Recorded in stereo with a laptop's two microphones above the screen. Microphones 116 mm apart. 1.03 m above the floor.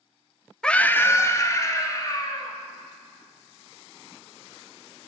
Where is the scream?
5° left (ahead or behind), 0.8 m; by 2.6 s 35° left (ahead or behind), 3 m.